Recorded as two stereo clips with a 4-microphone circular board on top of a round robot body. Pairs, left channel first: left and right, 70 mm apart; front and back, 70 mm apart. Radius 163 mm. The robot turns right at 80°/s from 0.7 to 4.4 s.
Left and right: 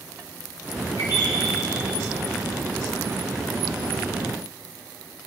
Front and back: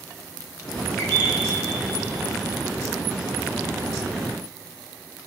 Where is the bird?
50° left, 4.5 m; by 1.4 s 85° left, 4.5 m.